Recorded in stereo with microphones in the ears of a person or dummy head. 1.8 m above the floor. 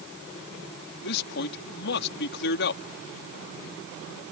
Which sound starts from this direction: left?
A man speaking, at 1.0 s.